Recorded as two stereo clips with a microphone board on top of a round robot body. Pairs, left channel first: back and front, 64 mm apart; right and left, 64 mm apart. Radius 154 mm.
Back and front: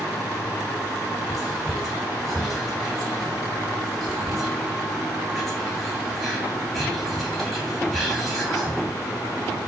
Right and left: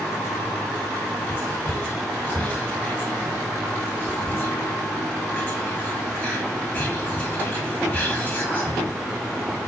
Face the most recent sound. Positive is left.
turn(degrees=-95)